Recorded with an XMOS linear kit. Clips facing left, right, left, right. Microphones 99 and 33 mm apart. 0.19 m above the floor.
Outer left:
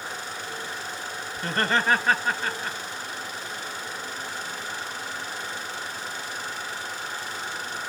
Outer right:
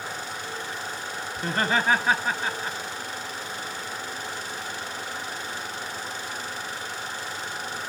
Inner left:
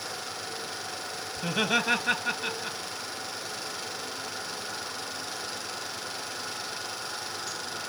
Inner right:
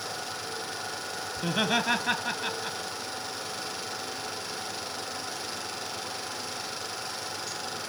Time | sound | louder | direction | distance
1.4 | laughter | even, even | 15° right (ahead or behind) | 2.5 m